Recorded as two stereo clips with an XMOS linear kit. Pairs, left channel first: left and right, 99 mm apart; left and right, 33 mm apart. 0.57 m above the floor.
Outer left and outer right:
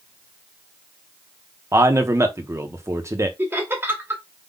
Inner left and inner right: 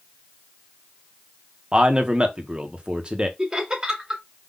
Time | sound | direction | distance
1.7 | a man speaking | 30° right (ahead or behind) | 0.9 m
3.4 | laughter | 25° right (ahead or behind) | 2 m